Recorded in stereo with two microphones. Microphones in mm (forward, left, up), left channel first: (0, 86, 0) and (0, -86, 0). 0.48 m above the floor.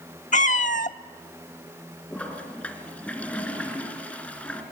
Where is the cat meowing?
50° left (ahead or behind), 0.5 m.